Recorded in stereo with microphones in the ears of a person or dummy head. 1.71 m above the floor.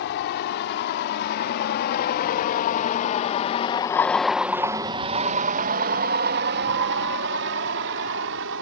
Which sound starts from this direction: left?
A vehicle, at 0.0 s.